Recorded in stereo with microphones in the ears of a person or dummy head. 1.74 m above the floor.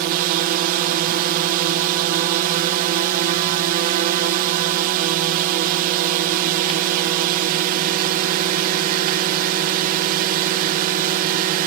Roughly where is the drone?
Right.